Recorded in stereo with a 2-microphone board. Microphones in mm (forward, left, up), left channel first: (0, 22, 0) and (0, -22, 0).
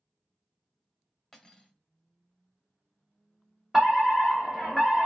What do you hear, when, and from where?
1.3 s cutlery clinking: 10° left (ahead or behind), 0.8 m
3.7 s a fire alarm: 5° right (ahead or behind), 1.9 m